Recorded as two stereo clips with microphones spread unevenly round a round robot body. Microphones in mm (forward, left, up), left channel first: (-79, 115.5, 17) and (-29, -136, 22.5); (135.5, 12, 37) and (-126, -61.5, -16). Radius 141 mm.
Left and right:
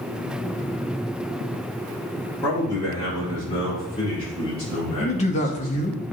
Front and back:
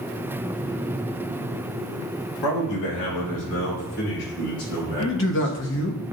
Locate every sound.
2.4 s a man speaking: 20° left, 2.5 m; by 5.9 s 35° left, 6.5 m
5.0 s a man speaking: 55° left, 1.0 m